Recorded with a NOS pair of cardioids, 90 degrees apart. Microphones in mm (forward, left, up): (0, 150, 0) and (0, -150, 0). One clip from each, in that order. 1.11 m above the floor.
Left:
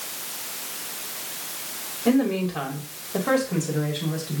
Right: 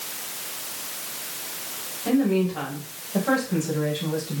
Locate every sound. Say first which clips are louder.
2.0 s a woman speaking: even; 40° left, 4.5 m; by 4.4 s 25° left, 5 m